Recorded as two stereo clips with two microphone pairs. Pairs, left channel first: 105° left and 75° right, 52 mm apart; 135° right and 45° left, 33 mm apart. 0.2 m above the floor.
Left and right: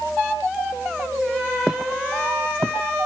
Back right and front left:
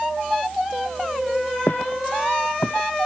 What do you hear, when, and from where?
1.7 s footsteps: 150° right; by 3.1 s 125° right